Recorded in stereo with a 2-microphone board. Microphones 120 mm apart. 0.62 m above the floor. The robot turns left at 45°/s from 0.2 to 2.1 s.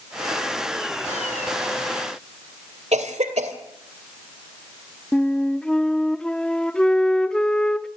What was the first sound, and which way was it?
A cough, 60° right (ahead or behind).